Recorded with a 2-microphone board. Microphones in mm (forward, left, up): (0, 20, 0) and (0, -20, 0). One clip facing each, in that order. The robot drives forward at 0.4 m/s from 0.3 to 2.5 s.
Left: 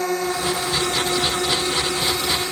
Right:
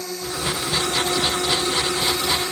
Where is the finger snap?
No finger snap in this recording.